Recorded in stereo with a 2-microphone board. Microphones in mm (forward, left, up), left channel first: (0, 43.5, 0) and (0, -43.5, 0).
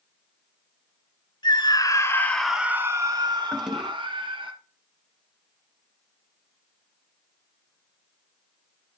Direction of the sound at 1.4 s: 55° left (ahead or behind).